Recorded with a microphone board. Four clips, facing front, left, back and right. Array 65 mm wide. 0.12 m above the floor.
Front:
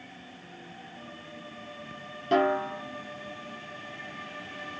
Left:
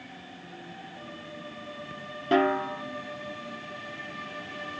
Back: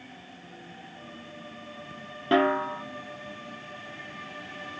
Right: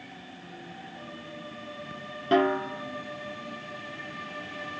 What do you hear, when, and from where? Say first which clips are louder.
2.3 s a snare drum: even, back 1 dB; 175° right, 1.3 m